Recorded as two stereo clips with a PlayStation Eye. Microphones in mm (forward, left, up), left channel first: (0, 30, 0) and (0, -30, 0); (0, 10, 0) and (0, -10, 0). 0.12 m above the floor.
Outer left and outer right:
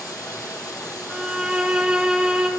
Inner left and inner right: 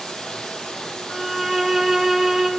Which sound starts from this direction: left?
Running water, at 0.0 s.